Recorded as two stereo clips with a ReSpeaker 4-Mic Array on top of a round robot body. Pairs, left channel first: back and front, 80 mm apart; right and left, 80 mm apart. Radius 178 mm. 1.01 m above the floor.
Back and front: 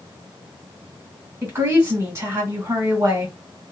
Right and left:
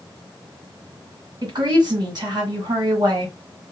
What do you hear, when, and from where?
1.4 s a woman speaking: 55° left, 2 m